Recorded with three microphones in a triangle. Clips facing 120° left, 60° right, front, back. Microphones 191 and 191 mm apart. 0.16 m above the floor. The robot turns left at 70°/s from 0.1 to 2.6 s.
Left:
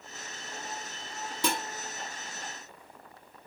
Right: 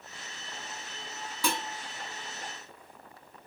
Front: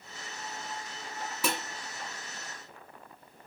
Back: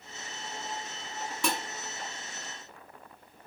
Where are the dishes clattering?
80° left, 1.0 m; by 1.6 s 70° left, 1.0 m.